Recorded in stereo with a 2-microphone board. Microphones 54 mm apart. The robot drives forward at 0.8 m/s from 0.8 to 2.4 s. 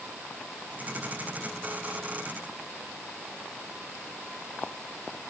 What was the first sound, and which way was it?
Only background noise.